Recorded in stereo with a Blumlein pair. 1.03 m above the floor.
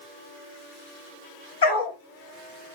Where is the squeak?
No squeak in this recording.